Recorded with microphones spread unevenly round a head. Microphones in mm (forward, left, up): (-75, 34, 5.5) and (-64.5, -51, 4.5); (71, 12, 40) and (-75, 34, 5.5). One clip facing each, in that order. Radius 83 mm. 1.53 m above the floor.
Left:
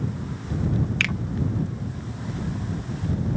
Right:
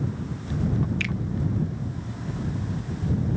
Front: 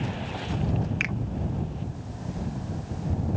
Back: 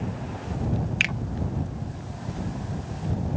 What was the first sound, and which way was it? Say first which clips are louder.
A finger snap: left 2 dB, even; 120° left.